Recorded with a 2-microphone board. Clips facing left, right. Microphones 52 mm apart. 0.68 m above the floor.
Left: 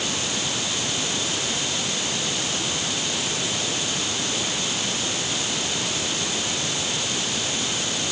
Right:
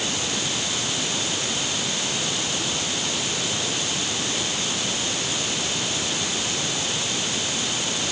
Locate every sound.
Only background noise.